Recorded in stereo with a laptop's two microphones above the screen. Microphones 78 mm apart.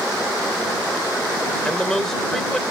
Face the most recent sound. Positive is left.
turn(degrees=5)  # may be behind; listen again after turning